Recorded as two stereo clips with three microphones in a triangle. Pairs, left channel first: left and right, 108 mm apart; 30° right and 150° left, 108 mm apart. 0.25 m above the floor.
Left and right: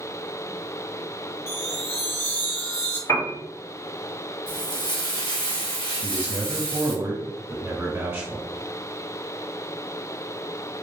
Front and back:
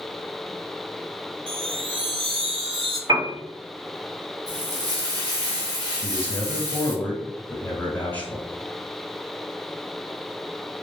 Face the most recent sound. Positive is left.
turn(degrees=-75)